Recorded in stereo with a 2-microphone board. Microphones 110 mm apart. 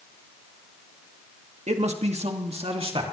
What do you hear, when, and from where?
1.7 s a man speaking: 90° right, 1.9 m; by 3.1 s 55° right (ahead or behind), 2.5 m